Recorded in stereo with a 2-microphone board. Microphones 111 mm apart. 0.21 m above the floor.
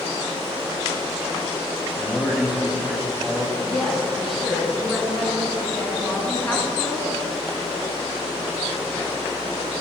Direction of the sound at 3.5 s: 5° left (ahead or behind).